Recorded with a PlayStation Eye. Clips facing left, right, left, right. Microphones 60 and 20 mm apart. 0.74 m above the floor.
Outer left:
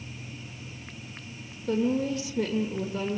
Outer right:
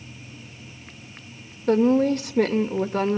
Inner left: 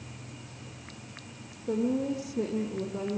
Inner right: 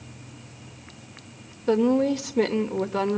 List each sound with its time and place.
1.7 s a woman speaking: 70° right (ahead or behind), 2 m